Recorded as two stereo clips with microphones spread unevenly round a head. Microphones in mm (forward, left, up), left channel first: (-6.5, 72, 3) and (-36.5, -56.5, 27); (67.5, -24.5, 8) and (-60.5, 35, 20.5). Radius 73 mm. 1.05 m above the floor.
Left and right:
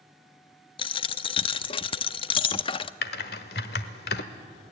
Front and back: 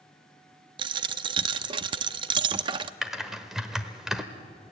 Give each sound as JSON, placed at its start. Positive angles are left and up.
{"t": 0.8, "sound": "a dropped coin", "azimuth_deg": 125, "distance_m": 0.5}
{"t": 3.0, "sound": "typing on a keyboard", "azimuth_deg": 70, "distance_m": 1.1}